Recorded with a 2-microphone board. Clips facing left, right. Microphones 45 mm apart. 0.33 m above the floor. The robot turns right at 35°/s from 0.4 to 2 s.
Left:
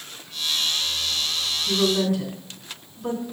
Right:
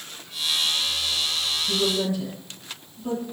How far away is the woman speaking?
About 2.5 m.